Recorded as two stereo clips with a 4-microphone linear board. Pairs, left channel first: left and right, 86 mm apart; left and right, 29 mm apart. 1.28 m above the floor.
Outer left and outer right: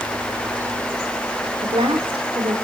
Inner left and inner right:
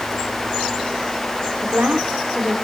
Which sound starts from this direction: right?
A woman speaking, at 1.6 s.